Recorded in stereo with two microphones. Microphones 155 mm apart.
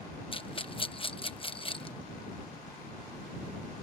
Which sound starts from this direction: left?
A rattle, at 0.3 s.